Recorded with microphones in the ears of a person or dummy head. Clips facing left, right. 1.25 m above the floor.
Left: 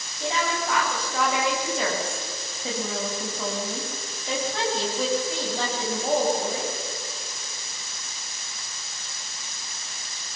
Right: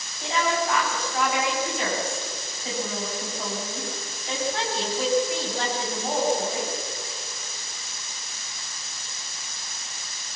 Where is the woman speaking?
85° left, 7.5 m.